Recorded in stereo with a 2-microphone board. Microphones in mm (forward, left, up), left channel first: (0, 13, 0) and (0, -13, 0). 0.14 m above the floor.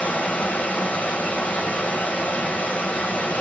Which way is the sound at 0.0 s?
85° left.